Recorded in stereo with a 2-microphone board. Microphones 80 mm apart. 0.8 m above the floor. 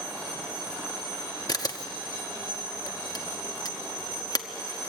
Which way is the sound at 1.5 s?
50° left (ahead or behind).